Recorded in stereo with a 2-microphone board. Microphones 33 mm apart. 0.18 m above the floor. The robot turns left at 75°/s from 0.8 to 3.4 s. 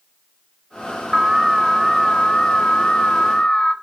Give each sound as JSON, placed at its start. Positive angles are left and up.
{"t": 1.1, "sound": "an alarm", "side_deg": -15, "distance_m": 0.8}